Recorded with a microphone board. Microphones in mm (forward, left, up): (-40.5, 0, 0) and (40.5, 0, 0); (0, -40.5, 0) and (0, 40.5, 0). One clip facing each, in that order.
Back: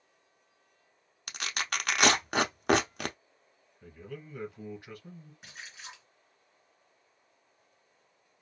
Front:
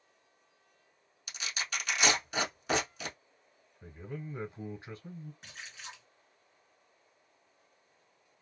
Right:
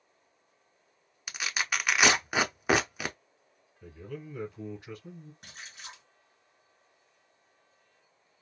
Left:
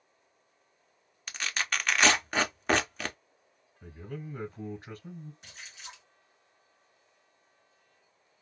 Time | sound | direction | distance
1.3 | tearing paper | 170° right | 0.6 m
3.8 | a man speaking | 50° left | 1.4 m
5.4 | a splash | 95° right | 2 m